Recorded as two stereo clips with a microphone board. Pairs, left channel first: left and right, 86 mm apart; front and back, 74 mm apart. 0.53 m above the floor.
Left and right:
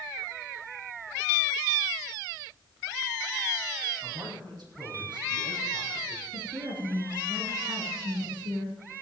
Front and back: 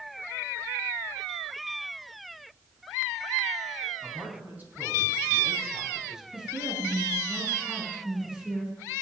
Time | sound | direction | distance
4.0 | a man speaking | 120° right | 6 m
6.3 | a woman speaking | 105° right | 7.5 m